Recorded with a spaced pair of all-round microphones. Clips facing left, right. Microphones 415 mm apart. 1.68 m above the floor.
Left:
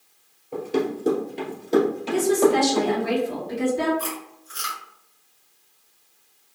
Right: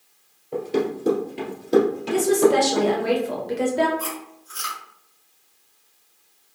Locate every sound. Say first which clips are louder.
0.5 s running footsteps: right 1 dB; 10° right (ahead or behind), 1.7 m; by 3.1 s 30° right (ahead or behind), 3 m
2.1 s a woman speaking: right 1 dB; 85° right, 1.1 m
4.0 s chewing: even; 25° right (ahead or behind), 1.9 m